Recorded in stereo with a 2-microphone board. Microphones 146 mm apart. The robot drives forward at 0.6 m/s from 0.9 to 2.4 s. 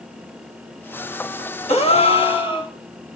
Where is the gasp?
45° left (ahead or behind), 1.5 m; by 2.7 s 35° left (ahead or behind), 1.8 m.